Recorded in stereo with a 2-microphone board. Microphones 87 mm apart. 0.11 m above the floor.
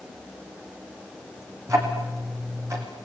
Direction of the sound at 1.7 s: 35° right (ahead or behind).